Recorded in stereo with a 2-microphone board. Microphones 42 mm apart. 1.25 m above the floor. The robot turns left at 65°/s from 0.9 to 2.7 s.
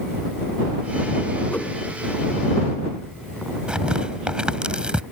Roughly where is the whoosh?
Left.